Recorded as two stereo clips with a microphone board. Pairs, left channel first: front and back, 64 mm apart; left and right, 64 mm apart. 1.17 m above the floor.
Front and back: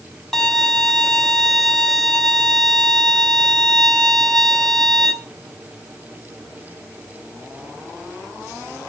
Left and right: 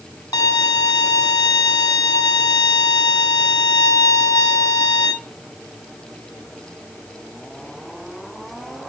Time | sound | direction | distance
0.3 | a violin | 85° left | 1.1 m